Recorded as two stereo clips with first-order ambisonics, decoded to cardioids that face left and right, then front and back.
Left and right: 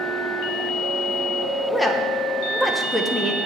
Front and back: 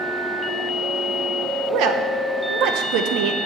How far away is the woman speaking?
About 1.1 m.